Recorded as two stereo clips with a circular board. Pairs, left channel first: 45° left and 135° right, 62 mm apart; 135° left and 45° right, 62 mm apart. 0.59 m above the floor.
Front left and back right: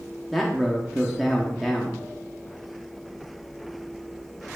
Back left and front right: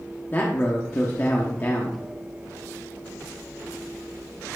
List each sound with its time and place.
0.3 s a man speaking: 135° left, 1.0 m